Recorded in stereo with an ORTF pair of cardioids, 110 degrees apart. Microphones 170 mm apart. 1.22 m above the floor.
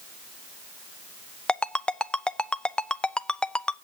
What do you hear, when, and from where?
1.5 s a ringtone: 5° left, 0.6 m